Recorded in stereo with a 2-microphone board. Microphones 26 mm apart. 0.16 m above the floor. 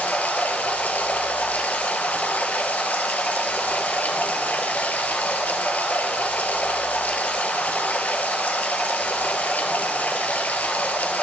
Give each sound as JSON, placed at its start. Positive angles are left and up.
{"t": 0.0, "sound": "running water", "side_deg": 75, "distance_m": 0.9}